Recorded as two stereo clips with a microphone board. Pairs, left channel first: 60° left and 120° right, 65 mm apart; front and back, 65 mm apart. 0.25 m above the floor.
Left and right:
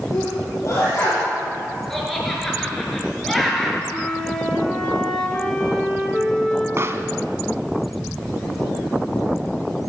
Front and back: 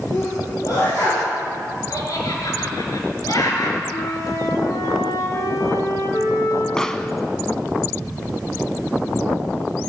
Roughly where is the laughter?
Ahead right.